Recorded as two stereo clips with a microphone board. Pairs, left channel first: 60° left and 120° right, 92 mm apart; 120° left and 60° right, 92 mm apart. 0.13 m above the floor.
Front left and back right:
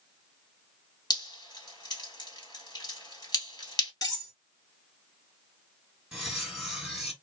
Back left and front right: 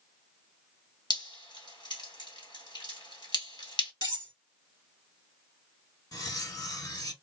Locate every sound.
1.1 s dripping: 95° left, 1.8 m
4.0 s cutlery clinking: 100° left, 1.6 m
6.1 s cutlery clinking: 155° left, 1.5 m